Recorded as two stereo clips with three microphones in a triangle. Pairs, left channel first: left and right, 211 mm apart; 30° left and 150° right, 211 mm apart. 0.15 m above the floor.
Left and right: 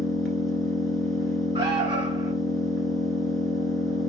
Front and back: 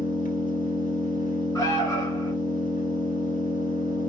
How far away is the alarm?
About 2.0 m.